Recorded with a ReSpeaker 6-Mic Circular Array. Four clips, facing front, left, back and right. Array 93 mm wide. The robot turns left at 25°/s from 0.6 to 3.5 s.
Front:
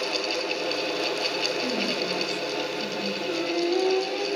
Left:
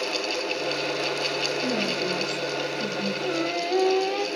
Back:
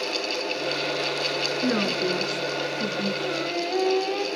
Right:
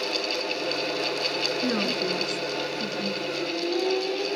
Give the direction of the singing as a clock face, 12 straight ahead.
8 o'clock.